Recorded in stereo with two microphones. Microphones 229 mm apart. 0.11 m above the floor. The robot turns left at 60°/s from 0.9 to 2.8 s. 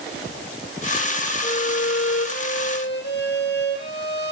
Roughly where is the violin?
Behind left.